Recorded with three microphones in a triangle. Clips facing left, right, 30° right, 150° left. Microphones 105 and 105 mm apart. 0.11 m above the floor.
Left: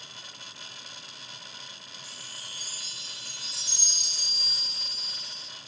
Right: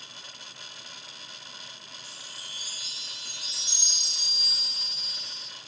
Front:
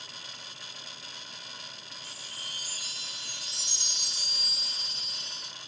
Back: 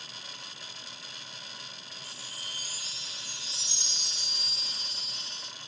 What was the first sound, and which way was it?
A chime, 55° right.